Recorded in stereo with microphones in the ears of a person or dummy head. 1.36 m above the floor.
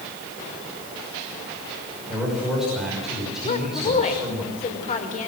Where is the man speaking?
5° right (ahead or behind), 6 m.